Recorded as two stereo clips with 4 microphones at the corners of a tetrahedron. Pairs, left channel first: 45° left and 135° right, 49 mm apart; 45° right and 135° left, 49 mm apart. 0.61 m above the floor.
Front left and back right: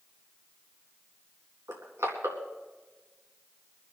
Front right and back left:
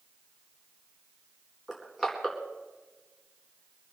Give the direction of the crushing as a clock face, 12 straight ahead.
5 o'clock.